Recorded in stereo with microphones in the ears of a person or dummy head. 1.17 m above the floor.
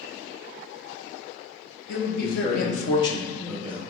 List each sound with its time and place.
1.9 s a man speaking: 50° left (ahead or behind), 1.1 m; by 3.8 s 10° right (ahead or behind), 0.8 m